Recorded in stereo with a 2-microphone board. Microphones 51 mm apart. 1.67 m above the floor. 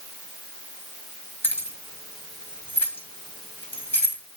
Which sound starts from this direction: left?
Keys jangling, at 1.4 s.